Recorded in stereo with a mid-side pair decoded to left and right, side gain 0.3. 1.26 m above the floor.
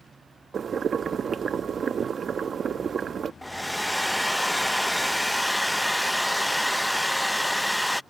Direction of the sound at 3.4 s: 5° left.